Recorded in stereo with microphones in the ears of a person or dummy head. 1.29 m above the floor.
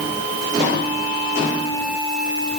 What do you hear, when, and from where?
Only background noise.